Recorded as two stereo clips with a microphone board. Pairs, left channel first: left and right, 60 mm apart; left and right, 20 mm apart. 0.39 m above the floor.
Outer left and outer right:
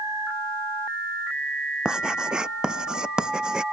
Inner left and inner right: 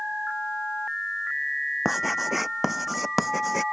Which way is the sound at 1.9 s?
10° right (ahead or behind).